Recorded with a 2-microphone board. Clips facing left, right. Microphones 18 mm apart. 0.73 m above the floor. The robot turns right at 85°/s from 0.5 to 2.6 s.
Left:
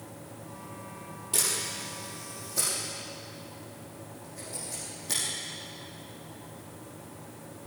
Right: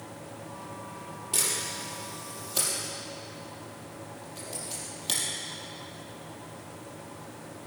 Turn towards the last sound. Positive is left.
turn(degrees=-65)  # may be behind; listen again after turning